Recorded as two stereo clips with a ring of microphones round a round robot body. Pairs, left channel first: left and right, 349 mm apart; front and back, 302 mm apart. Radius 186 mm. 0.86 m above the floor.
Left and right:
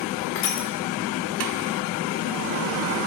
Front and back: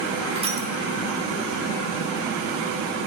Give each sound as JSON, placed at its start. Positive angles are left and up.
{"t": 0.3, "sound": "crushing", "azimuth_deg": 110, "distance_m": 1.2}